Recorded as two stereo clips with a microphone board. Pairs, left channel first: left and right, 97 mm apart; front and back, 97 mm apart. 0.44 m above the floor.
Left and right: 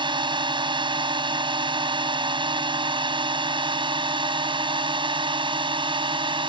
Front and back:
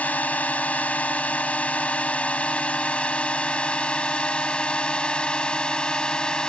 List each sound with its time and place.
0.0 s a drone: 75° right; by 6.5 s 80° right